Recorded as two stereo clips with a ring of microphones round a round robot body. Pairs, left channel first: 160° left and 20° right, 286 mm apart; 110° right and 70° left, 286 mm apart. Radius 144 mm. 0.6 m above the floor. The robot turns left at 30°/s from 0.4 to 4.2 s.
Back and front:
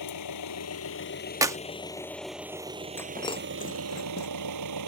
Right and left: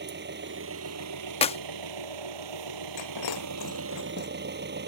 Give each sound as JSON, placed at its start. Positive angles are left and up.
{"t": 0.0, "sound": "an engine running", "azimuth_deg": 125}
{"t": 1.4, "sound": "a clap", "azimuth_deg": -85}
{"t": 3.0, "sound": "breaking glass", "azimuth_deg": -120}